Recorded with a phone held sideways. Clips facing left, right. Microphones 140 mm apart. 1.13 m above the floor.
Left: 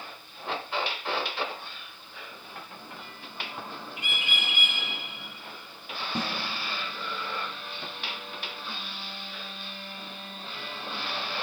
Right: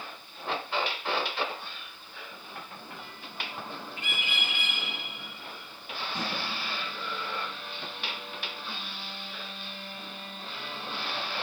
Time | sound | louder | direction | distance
4.0 | a bird | left 1 dB | 15° left (ahead or behind) | 3 m
6.2 | a snare drum | left 4 dB | 75° left (ahead or behind) | 1.6 m